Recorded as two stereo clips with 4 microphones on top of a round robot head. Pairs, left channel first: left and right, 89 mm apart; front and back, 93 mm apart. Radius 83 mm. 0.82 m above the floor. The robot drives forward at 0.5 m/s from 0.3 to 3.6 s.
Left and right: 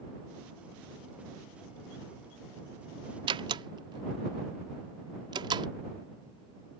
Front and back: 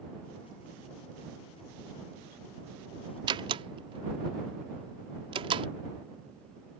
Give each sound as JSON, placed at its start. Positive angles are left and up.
{"t": 3.3, "sound": "a door slam", "azimuth_deg": -130}